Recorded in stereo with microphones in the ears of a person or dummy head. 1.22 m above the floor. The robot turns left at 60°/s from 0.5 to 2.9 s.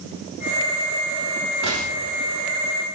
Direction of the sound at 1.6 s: 120° right.